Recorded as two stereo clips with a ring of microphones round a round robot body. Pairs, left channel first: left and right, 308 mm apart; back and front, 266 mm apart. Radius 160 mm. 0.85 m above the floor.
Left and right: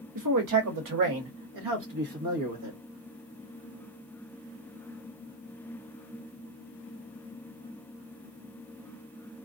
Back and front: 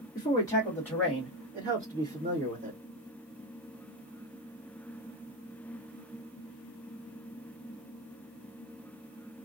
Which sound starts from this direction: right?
A man speaking, at 0.1 s.